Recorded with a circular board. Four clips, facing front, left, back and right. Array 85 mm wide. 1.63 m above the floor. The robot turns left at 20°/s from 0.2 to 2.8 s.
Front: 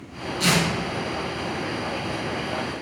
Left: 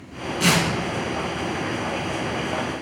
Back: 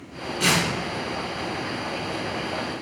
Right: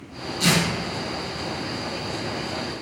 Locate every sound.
0.4 s tearing paper: 120° left, 1.1 m; by 0.7 s 115° left, 1.1 m